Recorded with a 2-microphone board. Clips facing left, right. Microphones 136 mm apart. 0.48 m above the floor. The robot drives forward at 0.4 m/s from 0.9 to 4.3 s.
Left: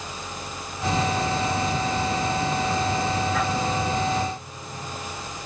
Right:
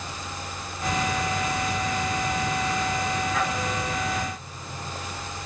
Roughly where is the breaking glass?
No breaking glass in this recording.